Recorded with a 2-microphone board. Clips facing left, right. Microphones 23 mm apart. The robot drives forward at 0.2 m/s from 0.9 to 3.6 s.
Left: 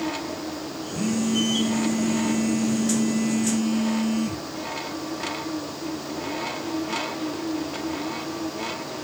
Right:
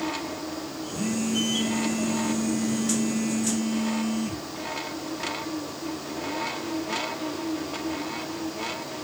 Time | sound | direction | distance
0.9 | a phone buzzing | 45° left (ahead or behind) | 2.0 m